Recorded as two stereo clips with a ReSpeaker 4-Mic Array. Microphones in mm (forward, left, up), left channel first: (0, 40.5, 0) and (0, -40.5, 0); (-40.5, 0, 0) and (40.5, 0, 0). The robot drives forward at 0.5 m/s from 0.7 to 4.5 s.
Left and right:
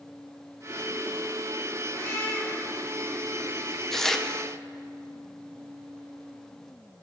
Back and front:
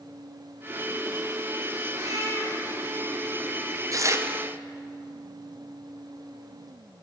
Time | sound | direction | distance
1.9 | a cat meowing | 35° left | 2.5 m
3.9 | tearing paper | 5° left | 0.7 m